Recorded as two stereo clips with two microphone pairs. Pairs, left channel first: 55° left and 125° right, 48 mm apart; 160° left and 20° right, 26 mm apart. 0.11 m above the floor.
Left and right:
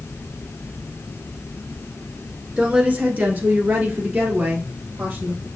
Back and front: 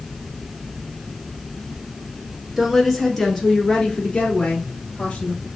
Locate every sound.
2.6 s a woman speaking: 80° right, 1.2 m; by 5.5 s 155° right, 2.5 m